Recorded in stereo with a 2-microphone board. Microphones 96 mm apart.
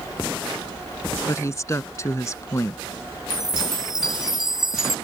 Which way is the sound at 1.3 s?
30° left (ahead or behind).